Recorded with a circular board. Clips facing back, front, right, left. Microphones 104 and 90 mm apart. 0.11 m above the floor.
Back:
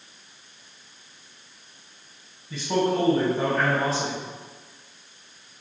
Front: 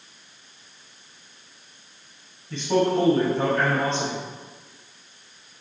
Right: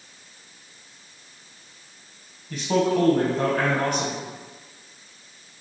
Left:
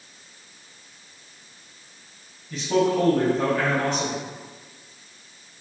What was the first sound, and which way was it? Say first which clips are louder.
A man speaking: front 2 dB, even; 95° right.